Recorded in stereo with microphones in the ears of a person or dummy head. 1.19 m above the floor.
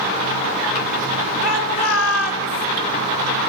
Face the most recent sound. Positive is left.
turn(degrees=80)